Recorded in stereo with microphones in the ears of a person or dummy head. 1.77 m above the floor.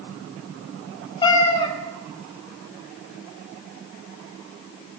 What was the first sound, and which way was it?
A cat meowing, 25° left (ahead or behind).